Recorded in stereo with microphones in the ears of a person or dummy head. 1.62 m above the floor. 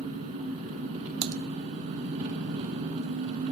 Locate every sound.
0.0 s an engine running: 45° right (ahead or behind), 1.3 m
1.2 s typing on a keyboard: 75° right (ahead or behind), 0.5 m